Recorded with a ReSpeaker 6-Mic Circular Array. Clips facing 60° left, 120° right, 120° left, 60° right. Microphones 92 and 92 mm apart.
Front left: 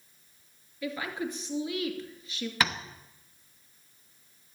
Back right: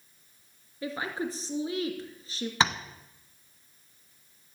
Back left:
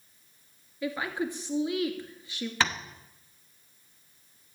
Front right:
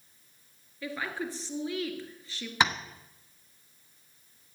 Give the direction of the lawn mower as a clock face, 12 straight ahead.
No lawn mower in this recording.